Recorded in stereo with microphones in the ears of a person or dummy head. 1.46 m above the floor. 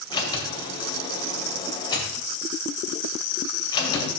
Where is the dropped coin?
I don't hear a dropped coin.